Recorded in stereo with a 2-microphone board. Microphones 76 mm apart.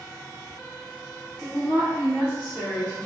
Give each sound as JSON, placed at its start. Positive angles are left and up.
{"t": 1.4, "sound": "a woman speaking", "side_deg": -15, "distance_m": 1.3}